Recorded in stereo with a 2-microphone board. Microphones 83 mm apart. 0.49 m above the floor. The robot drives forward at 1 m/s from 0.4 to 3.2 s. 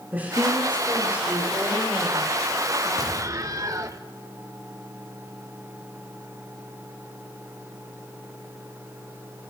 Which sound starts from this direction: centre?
A woman speaking, at 0.1 s.